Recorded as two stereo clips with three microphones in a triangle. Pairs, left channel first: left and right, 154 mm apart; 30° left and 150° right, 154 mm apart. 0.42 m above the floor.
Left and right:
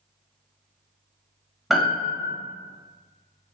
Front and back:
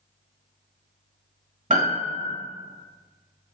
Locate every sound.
1.7 s a piano: straight behind, 1.0 m